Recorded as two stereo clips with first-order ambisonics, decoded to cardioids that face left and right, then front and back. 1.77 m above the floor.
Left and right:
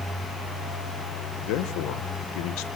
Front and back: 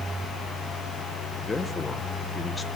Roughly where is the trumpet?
I don't hear a trumpet.